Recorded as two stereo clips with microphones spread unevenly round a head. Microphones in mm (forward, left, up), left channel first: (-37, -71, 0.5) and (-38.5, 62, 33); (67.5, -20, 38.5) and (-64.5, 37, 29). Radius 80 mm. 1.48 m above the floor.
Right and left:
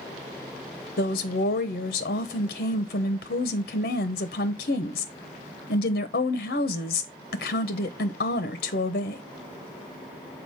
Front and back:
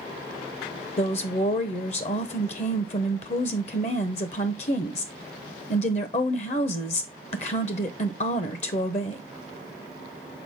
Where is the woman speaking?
70° right, 0.8 m.